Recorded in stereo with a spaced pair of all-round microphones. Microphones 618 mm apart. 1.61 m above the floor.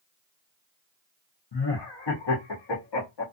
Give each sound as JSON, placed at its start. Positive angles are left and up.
{"t": 1.5, "sound": "laughter", "side_deg": 40, "distance_m": 0.7}